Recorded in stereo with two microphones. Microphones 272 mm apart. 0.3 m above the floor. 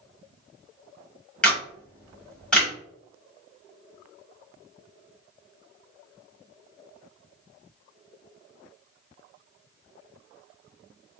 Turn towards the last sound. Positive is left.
turn(degrees=5)  # may be behind; listen again after turning